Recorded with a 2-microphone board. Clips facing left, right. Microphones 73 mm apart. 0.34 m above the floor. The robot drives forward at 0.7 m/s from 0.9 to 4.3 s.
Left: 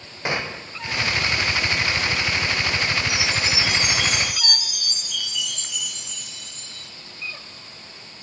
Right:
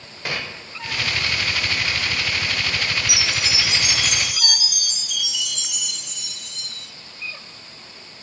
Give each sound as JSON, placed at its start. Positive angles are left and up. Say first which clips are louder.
{"t": 0.2, "sound": "a gunshot", "louder": "left 3 dB", "side_deg": 25, "distance_m": 0.6}
{"t": 3.1, "sound": "a chime", "louder": "left 1 dB", "side_deg": -85, "distance_m": 5.0}